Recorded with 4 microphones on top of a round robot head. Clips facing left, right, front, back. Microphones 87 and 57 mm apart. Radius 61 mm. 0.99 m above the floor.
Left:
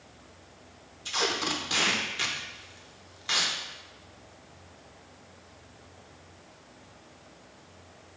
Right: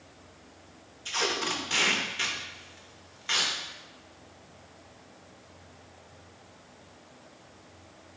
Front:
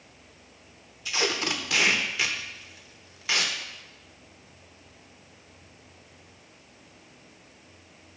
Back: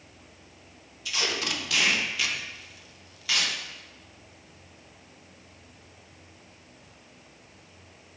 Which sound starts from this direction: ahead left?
Tape being pulled, at 1.1 s.